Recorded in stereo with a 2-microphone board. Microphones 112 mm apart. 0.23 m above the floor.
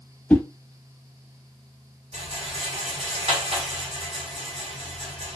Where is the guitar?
I don't hear a guitar.